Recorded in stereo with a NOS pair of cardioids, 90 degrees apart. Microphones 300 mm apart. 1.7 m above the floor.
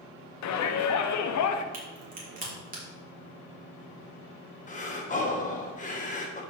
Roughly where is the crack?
Ahead right.